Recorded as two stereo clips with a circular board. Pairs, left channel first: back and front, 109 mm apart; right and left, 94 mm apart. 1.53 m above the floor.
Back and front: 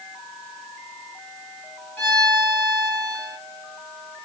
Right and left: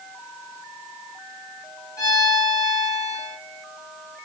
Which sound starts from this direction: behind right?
A violin, at 2.0 s.